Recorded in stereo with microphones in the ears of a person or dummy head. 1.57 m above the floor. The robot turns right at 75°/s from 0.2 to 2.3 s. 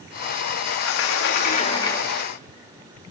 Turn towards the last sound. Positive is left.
turn(degrees=-170)